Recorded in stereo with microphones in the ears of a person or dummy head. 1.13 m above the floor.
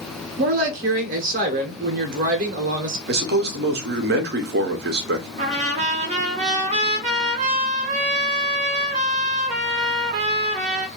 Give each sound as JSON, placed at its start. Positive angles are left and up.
{"t": 0.4, "sound": "a woman speaking", "side_deg": -40, "distance_m": 0.8}
{"t": 3.1, "sound": "a man speaking", "side_deg": -50, "distance_m": 0.6}
{"t": 5.4, "sound": "a trumpet", "side_deg": -30, "distance_m": 0.7}